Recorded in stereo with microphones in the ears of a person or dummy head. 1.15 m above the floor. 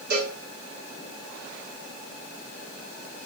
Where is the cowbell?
65° right (ahead or behind), 1.8 m.